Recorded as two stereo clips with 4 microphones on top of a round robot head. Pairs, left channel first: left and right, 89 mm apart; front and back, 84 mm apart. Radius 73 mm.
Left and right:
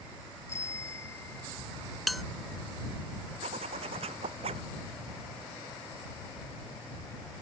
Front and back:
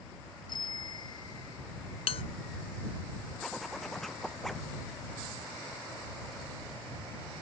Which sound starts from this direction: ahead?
A bell, at 2.1 s.